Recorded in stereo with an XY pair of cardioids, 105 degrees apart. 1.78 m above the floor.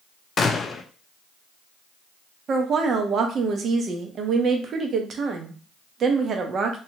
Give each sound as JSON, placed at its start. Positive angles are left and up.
{"t": 0.4, "sound": "a gunshot", "azimuth_deg": 45, "distance_m": 0.5}
{"t": 2.5, "sound": "a woman speaking", "azimuth_deg": -50, "distance_m": 0.8}